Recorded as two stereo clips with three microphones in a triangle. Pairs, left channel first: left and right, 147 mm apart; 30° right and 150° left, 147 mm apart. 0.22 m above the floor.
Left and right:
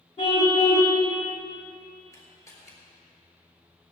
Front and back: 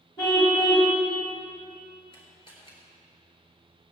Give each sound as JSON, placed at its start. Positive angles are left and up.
{"t": 0.2, "sound": "a car horn", "azimuth_deg": 35, "distance_m": 5.5}
{"t": 2.1, "sound": "a camera shutter", "azimuth_deg": 20, "distance_m": 4.5}